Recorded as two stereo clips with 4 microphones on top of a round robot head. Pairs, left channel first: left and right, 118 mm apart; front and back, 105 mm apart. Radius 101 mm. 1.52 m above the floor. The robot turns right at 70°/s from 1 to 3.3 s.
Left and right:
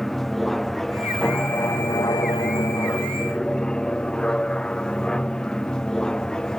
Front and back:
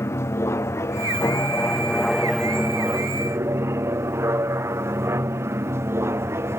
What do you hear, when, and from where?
0.0 s an aircraft: 5° left; by 6.6 s 165° left